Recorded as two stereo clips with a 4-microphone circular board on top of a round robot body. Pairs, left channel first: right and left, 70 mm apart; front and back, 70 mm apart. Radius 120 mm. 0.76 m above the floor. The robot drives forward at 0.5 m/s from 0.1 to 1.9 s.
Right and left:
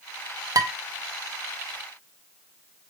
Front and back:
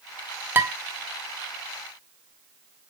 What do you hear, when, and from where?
0.6 s dishes clattering: 120° left, 0.6 m; by 0.7 s 130° left, 0.7 m